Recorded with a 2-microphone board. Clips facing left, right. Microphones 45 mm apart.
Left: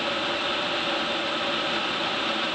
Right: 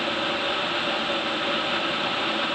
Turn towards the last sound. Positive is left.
No sound to turn to.